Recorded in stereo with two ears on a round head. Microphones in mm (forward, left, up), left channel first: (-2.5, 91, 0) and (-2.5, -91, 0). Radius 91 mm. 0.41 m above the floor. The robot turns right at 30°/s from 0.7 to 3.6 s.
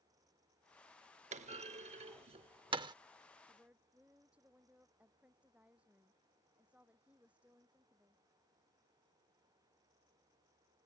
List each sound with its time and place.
1.3 s a clunk: 30° right (ahead or behind); by 3.0 s 20° right (ahead or behind)
3.5 s a woman speaking: 10° right (ahead or behind); by 8.2 s 5° right (ahead or behind)